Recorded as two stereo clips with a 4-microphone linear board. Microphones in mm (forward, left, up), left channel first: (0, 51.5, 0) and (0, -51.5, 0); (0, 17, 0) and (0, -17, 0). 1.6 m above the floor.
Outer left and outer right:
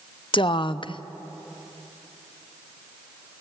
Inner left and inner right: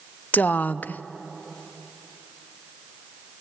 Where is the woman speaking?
55° left (ahead or behind), 0.7 m.